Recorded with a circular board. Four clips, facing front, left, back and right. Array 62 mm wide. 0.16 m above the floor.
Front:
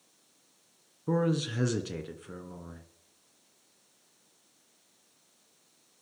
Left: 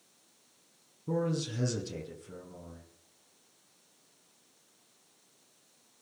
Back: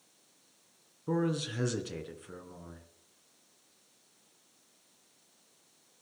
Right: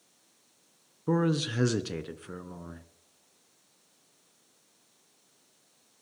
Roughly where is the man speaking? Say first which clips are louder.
Right 5 dB, front 3 dB; right.